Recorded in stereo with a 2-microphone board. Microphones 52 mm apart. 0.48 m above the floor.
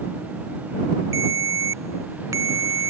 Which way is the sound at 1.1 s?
85° right.